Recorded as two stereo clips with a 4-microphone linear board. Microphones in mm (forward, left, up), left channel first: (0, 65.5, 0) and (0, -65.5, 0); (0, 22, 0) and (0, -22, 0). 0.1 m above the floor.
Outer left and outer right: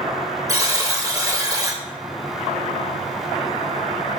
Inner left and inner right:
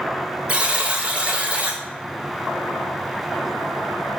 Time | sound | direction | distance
0.5 | a buzzer | 30° right (ahead or behind) | 0.6 m